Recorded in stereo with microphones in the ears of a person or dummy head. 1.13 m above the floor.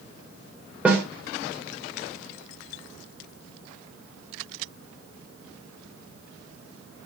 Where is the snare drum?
10° right (ahead or behind), 2.5 m.